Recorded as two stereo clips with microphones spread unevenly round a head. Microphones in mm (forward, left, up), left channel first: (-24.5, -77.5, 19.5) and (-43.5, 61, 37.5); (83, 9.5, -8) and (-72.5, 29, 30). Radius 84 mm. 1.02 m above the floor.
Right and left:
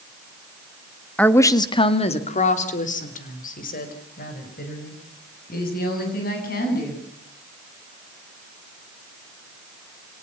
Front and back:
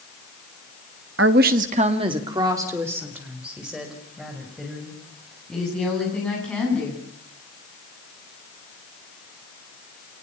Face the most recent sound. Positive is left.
turn(degrees=-90)